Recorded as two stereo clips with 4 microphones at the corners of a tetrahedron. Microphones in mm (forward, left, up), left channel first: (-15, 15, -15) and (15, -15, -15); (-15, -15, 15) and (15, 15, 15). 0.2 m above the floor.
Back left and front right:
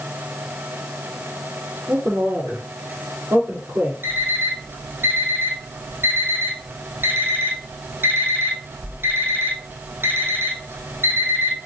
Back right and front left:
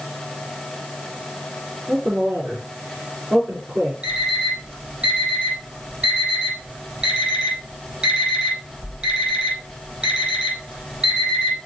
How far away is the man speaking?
About 4.5 m.